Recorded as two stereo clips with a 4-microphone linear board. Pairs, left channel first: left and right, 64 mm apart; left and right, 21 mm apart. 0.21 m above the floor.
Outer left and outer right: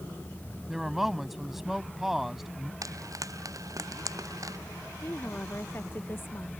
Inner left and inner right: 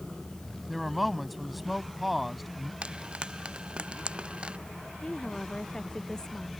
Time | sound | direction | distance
0.7 | a man speaking | 5° right (ahead or behind) | ?
2.8 | frying | 70° right (ahead or behind) | ?
5.0 | a woman speaking | 40° left (ahead or behind) | ?